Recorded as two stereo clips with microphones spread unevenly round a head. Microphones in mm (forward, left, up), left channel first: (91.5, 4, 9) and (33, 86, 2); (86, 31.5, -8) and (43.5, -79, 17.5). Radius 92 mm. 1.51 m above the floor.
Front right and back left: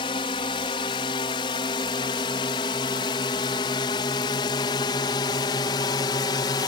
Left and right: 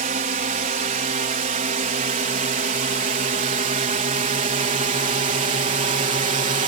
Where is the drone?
110° right.